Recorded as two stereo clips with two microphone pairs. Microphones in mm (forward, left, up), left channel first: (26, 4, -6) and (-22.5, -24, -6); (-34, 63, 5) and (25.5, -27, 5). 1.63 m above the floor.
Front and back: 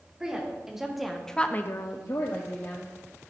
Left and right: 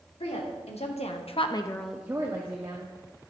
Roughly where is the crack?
I don't hear a crack.